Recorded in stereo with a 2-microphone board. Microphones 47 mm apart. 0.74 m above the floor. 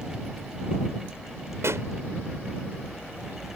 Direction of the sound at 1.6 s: 75° right (ahead or behind).